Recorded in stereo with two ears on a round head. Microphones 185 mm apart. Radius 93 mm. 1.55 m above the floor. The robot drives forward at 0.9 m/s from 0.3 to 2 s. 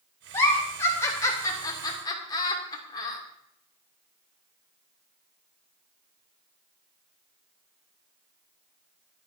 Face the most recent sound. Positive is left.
turn(degrees=20)  # may be behind; listen again after turning